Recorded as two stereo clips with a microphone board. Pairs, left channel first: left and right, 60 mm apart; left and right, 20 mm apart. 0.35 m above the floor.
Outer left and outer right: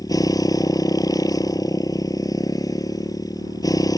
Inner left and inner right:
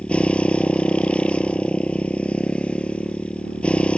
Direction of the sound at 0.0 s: 85° left.